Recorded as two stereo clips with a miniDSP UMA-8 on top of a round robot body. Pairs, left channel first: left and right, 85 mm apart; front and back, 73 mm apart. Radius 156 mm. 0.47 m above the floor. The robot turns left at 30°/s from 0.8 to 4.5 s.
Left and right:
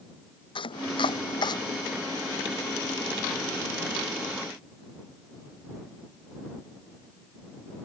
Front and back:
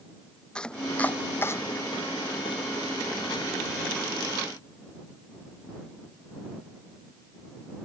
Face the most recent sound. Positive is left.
turn(degrees=-35)